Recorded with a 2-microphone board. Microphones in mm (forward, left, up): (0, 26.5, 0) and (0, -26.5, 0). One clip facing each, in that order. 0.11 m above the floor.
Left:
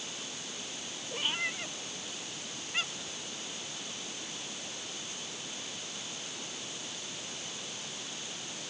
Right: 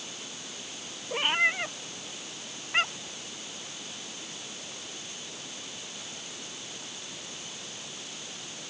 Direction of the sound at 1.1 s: 45° right (ahead or behind).